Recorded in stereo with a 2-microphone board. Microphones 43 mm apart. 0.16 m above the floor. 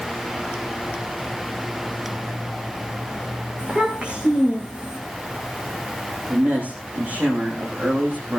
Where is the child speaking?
25° right (ahead or behind), 8 m; by 5.0 s 20° right (ahead or behind), 7.5 m.